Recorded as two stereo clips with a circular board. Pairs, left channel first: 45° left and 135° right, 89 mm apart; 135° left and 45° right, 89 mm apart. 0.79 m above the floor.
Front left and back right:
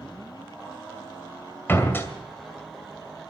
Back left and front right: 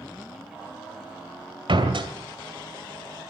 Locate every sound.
1.7 s a door slam: 20° right, 2.5 m